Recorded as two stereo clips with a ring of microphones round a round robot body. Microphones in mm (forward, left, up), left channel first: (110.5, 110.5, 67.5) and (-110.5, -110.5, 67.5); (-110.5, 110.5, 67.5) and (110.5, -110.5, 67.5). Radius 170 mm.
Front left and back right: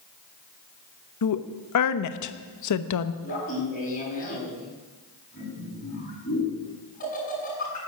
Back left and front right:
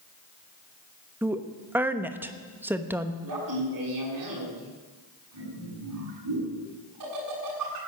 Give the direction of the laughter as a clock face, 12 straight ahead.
1 o'clock.